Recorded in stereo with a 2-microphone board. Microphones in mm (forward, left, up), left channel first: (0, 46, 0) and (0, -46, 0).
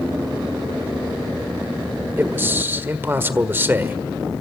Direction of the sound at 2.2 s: 20° right (ahead or behind).